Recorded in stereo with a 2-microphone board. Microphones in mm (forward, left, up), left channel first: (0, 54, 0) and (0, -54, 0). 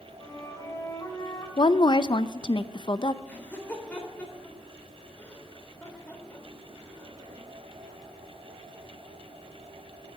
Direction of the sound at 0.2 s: 30° left (ahead or behind).